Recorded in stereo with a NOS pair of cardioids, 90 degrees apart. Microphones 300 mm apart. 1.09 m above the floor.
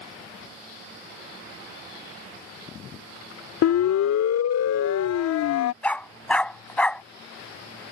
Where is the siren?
70° left.